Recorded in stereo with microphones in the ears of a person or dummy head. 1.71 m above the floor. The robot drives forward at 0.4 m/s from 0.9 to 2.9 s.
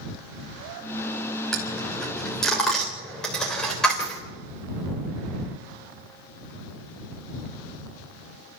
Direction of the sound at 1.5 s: Centre (ahead or behind).